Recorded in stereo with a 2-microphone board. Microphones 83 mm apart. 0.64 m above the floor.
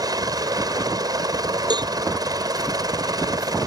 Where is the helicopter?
50° right (ahead or behind).